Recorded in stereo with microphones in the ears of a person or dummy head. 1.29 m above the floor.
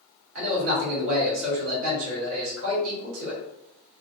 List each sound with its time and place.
0.3 s a man speaking: 75° right (ahead or behind), 1.8 m